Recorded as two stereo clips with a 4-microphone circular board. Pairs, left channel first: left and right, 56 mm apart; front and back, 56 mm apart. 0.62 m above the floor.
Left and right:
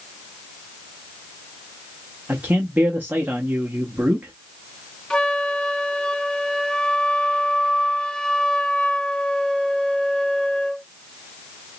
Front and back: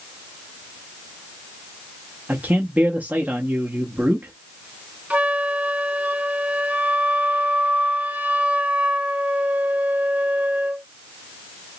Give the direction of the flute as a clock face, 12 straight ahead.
7 o'clock.